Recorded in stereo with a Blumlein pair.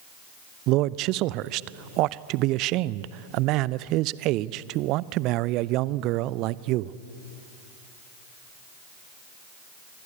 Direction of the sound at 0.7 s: 40° right.